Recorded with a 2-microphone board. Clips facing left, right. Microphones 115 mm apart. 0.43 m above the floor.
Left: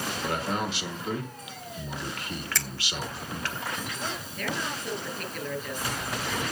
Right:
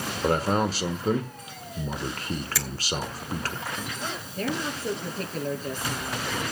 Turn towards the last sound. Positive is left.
turn(degrees=-35)  # may be behind; listen again after turning